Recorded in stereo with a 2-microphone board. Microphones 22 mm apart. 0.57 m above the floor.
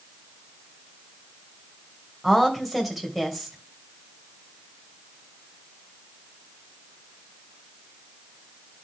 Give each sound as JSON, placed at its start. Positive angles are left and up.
{"t": 2.2, "sound": "a woman speaking", "side_deg": 0, "distance_m": 3.0}